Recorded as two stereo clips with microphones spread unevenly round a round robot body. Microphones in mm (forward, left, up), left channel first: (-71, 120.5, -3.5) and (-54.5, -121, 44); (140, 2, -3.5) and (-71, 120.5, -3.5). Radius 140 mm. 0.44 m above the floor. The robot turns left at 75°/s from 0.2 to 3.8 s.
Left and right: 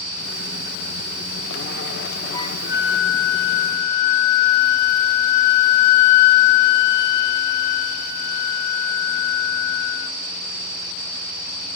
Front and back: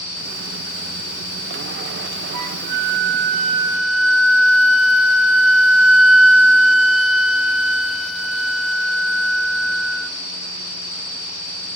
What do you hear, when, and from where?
2.3 s a flute: 170° left, 0.6 m; by 10.1 s 60° left, 0.6 m